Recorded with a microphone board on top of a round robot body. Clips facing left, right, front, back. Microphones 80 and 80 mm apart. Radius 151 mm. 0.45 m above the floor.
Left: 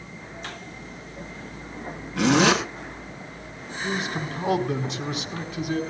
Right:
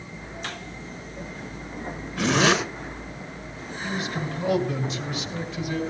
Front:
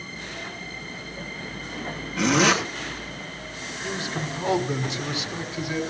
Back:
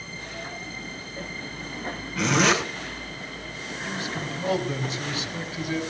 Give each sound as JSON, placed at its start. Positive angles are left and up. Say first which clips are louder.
{"t": 2.2, "sound": "a zipper", "louder": "left 2 dB, front 2 dB", "azimuth_deg": 90, "distance_m": 7.5}
{"t": 3.8, "sound": "a man speaking", "louder": "left 1 dB, front 2 dB", "azimuth_deg": 65, "distance_m": 4.0}